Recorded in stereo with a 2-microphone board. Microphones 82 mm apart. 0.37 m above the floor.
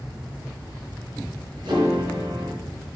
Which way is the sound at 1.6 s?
65° right (ahead or behind).